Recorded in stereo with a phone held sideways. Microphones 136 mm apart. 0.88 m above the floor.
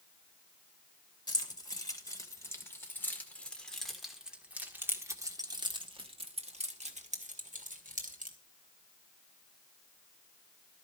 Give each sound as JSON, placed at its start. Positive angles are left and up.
{"t": 1.3, "sound": "keys jangling", "side_deg": 30, "distance_m": 2.5}